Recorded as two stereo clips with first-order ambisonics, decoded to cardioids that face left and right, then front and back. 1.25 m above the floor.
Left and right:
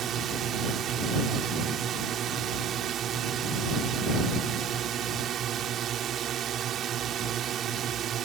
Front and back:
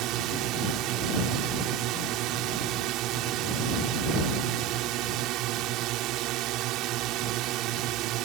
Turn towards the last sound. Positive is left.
turn(degrees=-145)